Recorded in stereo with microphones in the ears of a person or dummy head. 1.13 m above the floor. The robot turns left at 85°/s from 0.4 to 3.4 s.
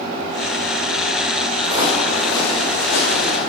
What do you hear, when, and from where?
1.6 s footsteps: 30° right (ahead or behind), 3 m; by 3.4 s 70° left (ahead or behind), 4.5 m